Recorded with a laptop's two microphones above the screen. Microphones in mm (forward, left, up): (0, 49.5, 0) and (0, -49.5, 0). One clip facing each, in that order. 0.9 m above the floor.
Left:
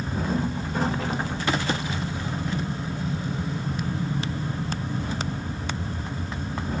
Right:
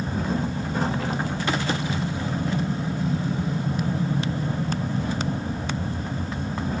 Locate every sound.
0.0 s an aircraft: 35° right (ahead or behind)